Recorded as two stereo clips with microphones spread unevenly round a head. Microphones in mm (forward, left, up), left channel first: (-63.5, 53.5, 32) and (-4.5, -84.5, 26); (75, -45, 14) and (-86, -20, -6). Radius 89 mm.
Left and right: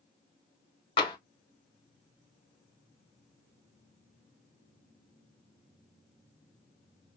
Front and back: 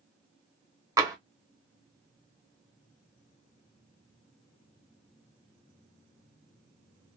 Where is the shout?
I don't hear a shout.